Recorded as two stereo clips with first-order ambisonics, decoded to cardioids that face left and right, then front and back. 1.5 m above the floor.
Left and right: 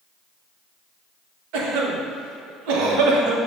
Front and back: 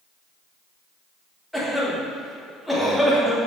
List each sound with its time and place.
1.5 s a cough: 90° right, 1.2 m